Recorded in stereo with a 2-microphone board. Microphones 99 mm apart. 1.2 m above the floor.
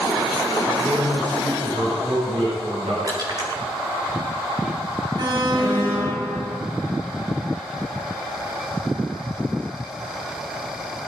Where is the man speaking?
70° right (ahead or behind), 7.5 m.